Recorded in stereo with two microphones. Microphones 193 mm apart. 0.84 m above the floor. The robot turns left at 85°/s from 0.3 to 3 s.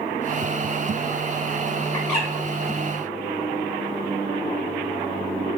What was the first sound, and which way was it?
A bird, 20° left (ahead or behind).